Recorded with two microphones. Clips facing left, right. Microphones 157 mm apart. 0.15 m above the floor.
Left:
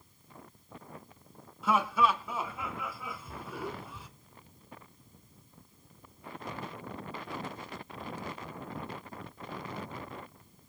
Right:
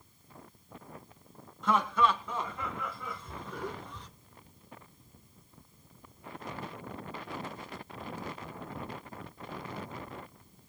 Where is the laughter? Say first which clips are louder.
Even; 5° left (ahead or behind), 1.4 m.